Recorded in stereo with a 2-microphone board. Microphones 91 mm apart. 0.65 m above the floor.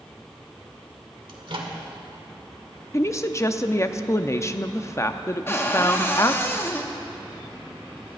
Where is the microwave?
65° right (ahead or behind), 1.8 m.